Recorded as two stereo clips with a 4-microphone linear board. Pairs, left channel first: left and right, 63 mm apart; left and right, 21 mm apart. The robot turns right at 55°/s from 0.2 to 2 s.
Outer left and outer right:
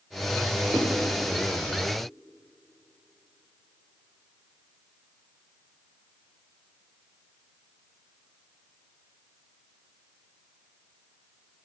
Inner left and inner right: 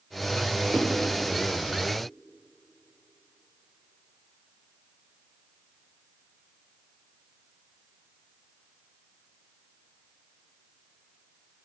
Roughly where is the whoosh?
Right.